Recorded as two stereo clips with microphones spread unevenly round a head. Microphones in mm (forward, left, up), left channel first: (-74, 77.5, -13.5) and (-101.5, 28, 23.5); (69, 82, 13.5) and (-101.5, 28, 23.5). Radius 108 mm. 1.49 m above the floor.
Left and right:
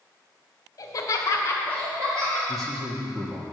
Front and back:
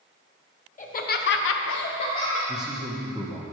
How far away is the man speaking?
About 1.0 m.